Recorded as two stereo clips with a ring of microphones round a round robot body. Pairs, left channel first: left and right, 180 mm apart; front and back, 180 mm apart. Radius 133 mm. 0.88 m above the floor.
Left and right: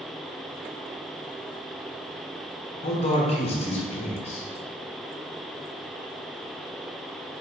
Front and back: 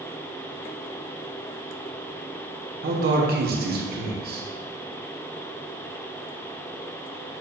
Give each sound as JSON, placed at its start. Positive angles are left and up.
{"t": 2.8, "sound": "a man speaking", "azimuth_deg": 150, "distance_m": 1.2}